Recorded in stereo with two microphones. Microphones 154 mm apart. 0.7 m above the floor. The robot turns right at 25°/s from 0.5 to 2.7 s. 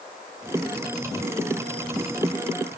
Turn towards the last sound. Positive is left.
No sound to turn to.